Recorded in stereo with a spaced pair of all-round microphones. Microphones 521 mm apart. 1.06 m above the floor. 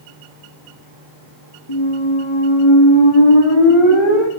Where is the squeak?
65° left (ahead or behind), 1.4 m.